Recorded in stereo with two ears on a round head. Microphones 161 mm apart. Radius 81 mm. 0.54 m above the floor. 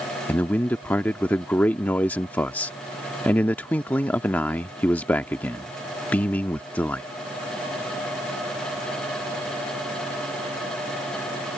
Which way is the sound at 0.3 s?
10° left (ahead or behind).